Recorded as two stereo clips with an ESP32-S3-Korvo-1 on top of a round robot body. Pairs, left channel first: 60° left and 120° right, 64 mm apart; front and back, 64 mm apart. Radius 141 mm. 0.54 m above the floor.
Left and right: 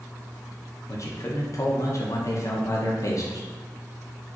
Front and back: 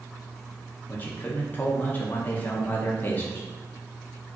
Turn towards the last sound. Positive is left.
turn(degrees=55)